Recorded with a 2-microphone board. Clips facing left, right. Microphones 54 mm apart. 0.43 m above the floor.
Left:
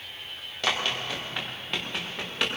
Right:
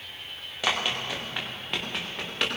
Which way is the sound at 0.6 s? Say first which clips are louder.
Even; 5° right (ahead or behind).